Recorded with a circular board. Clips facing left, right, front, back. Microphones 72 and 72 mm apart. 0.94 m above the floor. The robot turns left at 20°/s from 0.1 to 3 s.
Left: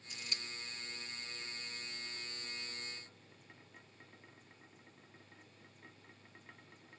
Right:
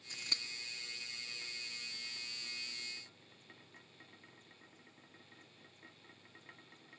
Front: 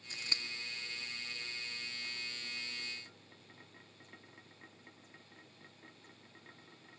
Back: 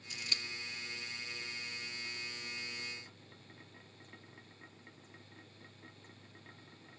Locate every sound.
0.1 s scissors: 50° right, 1.8 m; by 0.4 s 55° right, 1.8 m